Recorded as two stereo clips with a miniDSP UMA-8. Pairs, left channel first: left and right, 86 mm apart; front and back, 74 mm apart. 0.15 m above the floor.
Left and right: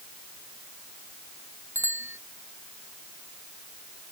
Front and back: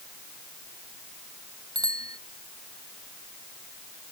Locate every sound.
1.8 s a bicycle bell: 150° right